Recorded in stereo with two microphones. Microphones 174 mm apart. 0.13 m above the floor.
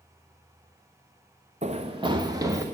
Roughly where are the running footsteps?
Right.